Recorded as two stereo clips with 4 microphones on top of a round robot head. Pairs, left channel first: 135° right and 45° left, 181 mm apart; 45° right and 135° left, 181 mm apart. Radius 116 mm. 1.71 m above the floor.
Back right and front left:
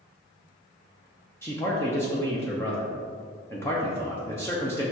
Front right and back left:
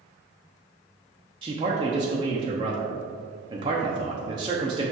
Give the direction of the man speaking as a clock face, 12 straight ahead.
7 o'clock.